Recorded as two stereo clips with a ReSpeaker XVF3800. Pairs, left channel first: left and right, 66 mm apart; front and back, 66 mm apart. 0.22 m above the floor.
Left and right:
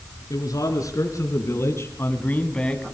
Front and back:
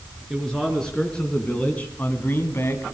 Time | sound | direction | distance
0.3 | a man speaking | 85° left | 4 m